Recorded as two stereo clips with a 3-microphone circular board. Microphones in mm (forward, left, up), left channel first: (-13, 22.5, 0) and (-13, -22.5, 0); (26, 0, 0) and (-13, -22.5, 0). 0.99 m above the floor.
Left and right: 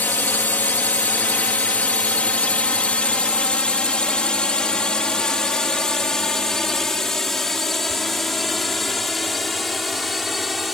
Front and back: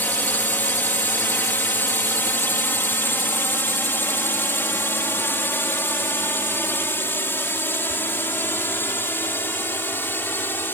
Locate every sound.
0.0 s a drone: 55° left; by 10.7 s 5° right